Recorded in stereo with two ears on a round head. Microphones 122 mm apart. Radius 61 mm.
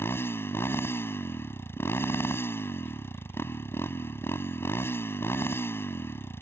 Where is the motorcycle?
20° left (ahead or behind).